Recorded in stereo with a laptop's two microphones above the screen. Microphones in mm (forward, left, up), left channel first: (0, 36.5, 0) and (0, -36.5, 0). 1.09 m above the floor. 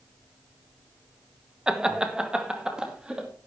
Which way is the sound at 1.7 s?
10° right (ahead or behind).